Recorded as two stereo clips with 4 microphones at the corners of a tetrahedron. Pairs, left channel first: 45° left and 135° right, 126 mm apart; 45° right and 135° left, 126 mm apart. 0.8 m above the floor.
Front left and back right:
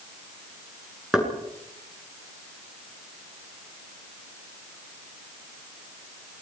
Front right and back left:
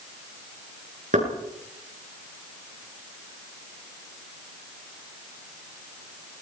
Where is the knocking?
140° left, 8.5 m.